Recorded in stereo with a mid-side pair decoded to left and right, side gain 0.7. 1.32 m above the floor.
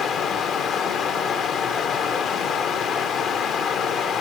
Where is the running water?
45° left, 1.1 m.